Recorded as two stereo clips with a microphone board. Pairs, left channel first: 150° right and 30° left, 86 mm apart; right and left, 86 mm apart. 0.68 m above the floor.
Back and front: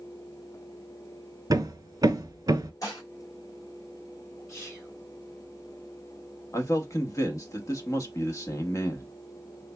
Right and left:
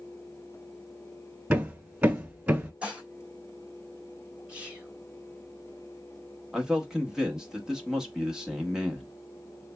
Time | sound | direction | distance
1.5 | hammering | 25° left | 1.1 m
2.8 | dishes clattering | 165° left | 1.9 m
4.5 | whispering | 160° left | 2.0 m
6.5 | a man speaking | 170° left | 0.9 m